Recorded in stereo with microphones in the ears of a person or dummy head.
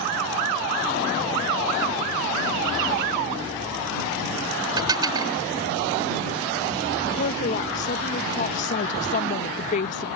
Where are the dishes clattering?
25° right (ahead or behind).